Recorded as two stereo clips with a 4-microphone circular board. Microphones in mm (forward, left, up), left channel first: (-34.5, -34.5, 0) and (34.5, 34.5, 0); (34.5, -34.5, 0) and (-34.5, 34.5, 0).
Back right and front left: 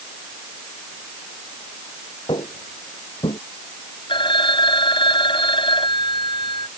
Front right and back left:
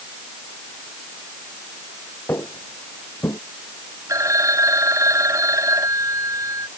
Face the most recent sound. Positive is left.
turn(degrees=-170)